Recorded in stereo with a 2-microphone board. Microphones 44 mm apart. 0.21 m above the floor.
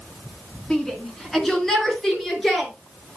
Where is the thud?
No thud in this recording.